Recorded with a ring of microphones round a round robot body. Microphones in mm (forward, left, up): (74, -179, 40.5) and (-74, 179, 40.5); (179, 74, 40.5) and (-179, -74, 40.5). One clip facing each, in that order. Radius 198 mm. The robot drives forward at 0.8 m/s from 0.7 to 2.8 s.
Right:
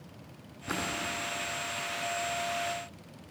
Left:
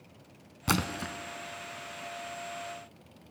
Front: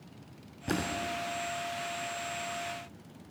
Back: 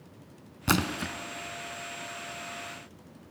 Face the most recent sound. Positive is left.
turn(degrees=170)